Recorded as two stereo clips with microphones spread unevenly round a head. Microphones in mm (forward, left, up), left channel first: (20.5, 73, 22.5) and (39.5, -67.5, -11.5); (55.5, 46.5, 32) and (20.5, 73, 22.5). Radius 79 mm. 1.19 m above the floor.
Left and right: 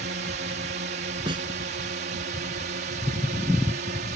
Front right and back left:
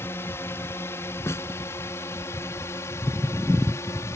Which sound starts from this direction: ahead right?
A snare drum, at 1.3 s.